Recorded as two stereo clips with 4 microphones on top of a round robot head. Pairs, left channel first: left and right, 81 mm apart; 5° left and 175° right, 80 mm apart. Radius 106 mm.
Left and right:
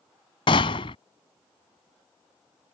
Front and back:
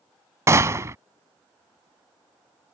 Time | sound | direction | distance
0.5 | a gunshot | 130° left | ?